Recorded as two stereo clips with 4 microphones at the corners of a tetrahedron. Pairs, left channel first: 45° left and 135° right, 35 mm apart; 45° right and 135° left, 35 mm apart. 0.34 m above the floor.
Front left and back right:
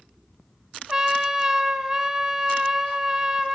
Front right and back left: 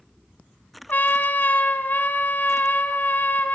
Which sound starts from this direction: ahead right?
A trumpet, at 0.9 s.